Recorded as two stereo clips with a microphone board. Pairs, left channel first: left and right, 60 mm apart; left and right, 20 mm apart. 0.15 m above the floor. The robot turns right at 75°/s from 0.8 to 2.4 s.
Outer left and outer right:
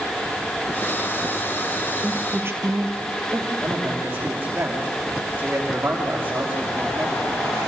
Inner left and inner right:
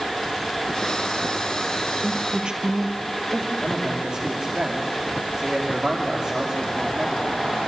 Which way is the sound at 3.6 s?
35° right (ahead or behind).